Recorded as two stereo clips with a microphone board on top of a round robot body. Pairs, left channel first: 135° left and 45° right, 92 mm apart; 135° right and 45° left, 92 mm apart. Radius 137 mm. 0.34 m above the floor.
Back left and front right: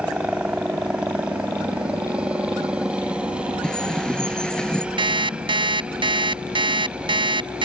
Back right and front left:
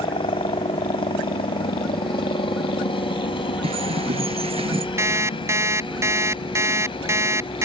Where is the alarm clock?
15° right.